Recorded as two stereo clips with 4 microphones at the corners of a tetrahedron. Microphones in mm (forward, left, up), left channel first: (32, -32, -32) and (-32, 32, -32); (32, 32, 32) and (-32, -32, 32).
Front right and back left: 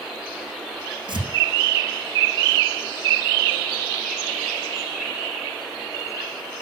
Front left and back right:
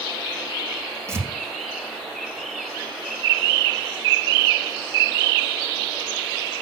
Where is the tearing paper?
165° left, 6.5 m.